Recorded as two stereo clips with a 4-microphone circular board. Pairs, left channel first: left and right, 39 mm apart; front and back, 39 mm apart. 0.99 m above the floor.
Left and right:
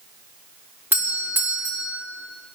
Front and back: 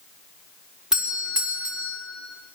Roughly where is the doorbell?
Right.